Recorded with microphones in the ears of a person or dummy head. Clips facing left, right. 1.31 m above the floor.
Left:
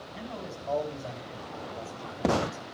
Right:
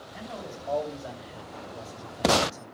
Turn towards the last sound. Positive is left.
turn(degrees=-25)  # may be behind; listen again after turning